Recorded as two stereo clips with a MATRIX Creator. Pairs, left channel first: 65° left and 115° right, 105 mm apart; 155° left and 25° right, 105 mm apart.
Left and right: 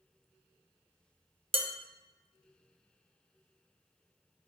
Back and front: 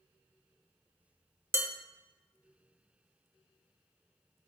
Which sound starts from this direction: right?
Dishes clattering, at 1.5 s.